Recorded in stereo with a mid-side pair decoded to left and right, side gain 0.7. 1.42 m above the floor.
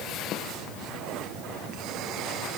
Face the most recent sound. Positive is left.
No sound to turn to.